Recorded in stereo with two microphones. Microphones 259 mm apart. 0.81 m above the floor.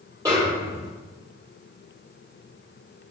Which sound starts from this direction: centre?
A snare drum, at 0.2 s.